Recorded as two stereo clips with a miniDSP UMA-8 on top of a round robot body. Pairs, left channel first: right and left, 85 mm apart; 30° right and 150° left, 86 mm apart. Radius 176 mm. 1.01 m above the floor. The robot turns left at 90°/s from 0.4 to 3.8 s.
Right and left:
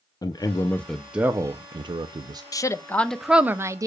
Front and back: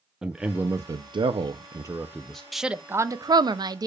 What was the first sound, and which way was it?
A man speaking, 125° right.